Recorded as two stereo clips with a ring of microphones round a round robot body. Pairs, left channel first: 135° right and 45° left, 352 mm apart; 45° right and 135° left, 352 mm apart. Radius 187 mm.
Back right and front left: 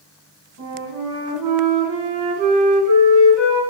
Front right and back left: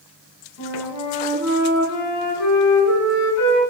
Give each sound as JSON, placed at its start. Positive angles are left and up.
{"t": 0.6, "sound": "a flute", "azimuth_deg": 0, "distance_m": 3.5}